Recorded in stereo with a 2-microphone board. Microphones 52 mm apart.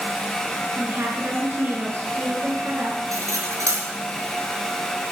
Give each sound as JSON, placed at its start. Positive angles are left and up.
{"t": 0.8, "sound": "a woman speaking", "side_deg": -55, "distance_m": 5.0}
{"t": 3.1, "sound": "cutlery clinking", "side_deg": -85, "distance_m": 4.0}